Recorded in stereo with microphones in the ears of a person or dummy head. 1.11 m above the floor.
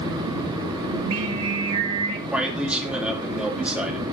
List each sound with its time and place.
0.9 s singing: 85° right, 1.2 m
2.3 s a man speaking: 5° right (ahead or behind), 2.5 m